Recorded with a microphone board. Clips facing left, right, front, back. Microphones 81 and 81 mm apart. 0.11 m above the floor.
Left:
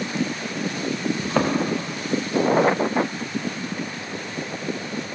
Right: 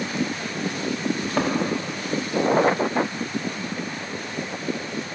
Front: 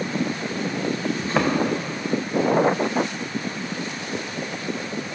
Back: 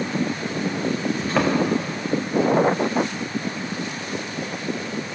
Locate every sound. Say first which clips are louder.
1.2 s a thud: left 3 dB, back 1 dB; 85° left, 2.5 m